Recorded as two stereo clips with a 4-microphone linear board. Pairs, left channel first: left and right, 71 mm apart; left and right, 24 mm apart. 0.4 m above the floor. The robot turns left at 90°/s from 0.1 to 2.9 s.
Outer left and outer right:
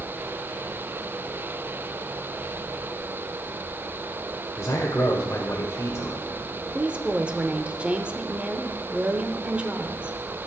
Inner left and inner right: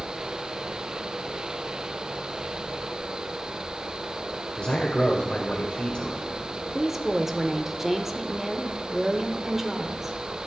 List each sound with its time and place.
4.6 s a man speaking: 40° left (ahead or behind), 1.2 m
6.7 s a woman speaking: 15° right (ahead or behind), 0.8 m